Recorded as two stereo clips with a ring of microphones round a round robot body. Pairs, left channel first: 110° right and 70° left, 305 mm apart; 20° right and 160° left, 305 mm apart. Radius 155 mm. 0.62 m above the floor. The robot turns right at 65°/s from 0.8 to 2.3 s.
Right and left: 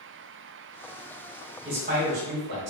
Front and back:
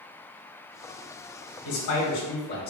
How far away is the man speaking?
About 2.0 m.